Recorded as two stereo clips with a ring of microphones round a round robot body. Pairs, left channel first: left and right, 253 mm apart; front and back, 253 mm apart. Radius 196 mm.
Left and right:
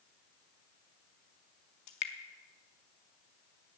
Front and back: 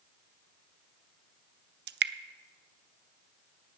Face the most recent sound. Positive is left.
turn(degrees=135)